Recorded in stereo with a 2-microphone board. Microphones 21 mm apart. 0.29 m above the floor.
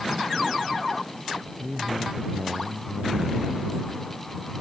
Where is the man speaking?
35° right (ahead or behind); by 3.6 s 45° right (ahead or behind).